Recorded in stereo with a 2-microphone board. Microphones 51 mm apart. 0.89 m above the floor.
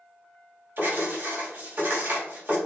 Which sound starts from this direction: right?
Writing, at 0.8 s.